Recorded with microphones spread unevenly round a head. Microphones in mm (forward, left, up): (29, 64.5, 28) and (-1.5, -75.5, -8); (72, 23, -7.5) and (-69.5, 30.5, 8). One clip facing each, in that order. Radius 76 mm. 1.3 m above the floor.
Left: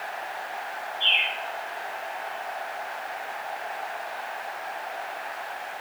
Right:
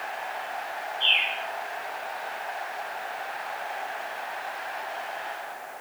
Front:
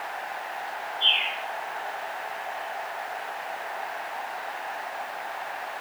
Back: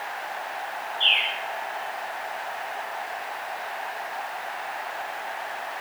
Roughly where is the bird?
Behind.